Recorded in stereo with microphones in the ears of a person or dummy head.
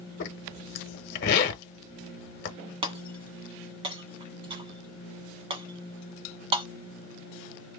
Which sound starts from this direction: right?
Breaking glass, at 2.8 s.